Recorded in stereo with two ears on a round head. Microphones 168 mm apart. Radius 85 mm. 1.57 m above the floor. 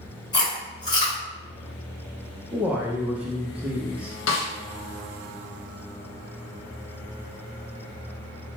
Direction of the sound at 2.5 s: 5° right (ahead or behind).